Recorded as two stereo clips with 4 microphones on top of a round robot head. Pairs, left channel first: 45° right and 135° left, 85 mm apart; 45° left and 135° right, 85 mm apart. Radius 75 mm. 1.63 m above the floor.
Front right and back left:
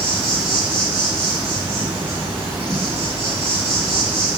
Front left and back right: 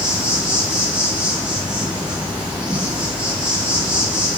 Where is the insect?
175° right, 2.0 m.